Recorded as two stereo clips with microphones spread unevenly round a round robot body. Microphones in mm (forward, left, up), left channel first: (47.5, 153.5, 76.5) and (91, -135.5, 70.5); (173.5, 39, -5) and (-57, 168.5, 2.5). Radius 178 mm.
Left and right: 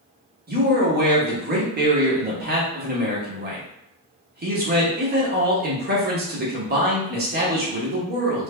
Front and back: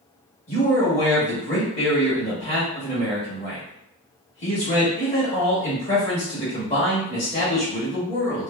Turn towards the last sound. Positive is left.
turn(degrees=-70)